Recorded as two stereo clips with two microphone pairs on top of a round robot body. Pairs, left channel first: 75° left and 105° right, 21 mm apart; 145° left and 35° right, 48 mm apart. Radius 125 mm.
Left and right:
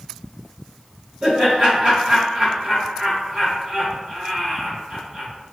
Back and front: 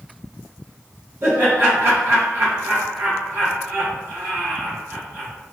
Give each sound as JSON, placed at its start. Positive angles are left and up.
{"t": 1.2, "sound": "laughter", "azimuth_deg": -75, "distance_m": 1.4}